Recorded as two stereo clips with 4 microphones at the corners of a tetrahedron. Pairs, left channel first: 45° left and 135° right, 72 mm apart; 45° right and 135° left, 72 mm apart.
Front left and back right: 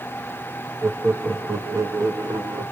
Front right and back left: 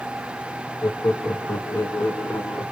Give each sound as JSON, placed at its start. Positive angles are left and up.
{"t": 0.8, "sound": "laughter", "azimuth_deg": -85, "distance_m": 0.8}